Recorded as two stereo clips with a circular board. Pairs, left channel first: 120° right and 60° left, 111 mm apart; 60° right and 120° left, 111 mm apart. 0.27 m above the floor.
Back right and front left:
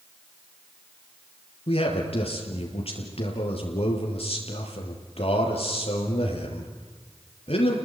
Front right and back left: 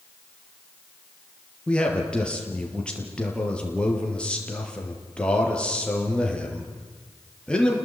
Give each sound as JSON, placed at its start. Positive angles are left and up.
{"t": 1.7, "sound": "a man speaking", "azimuth_deg": -140, "distance_m": 5.0}